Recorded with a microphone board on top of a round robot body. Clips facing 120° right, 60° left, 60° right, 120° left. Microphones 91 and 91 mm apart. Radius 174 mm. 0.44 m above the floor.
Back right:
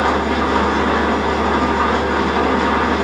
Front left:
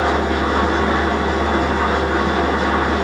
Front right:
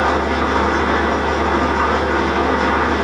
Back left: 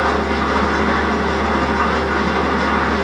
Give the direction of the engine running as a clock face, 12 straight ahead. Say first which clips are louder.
Back right 1 dB, front right 1 dB; 5 o'clock.